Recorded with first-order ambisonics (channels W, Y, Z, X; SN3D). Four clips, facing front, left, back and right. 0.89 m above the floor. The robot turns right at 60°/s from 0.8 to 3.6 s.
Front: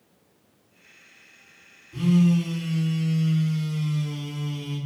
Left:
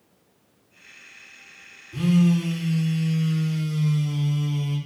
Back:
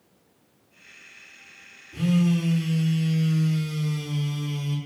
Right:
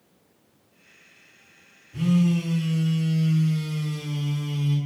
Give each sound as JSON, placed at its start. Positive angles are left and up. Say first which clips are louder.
{"t": 1.9, "sound": "a phone buzzing", "louder": "left 2 dB, front 2 dB", "azimuth_deg": 85, "distance_m": 1.9}